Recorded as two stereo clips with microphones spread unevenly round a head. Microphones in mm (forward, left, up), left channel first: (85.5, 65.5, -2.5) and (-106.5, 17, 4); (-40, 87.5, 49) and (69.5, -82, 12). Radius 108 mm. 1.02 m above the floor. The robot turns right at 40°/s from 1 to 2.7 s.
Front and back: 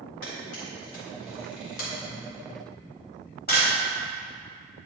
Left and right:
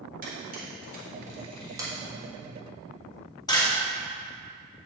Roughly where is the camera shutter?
Ahead.